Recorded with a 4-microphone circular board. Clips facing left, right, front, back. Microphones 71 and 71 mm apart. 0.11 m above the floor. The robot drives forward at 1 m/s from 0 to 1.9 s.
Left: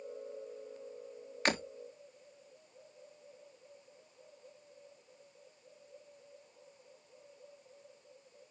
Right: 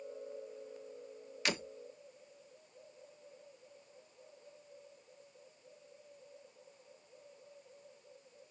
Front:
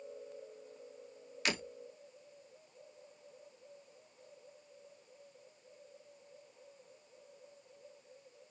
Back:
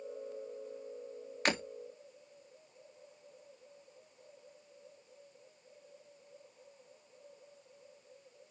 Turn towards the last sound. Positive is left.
turn(degrees=140)